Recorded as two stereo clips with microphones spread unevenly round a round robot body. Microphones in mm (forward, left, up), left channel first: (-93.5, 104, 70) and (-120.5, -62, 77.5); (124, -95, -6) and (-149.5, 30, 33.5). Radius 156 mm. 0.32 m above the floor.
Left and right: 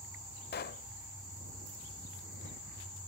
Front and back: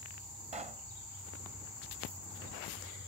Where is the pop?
85° left.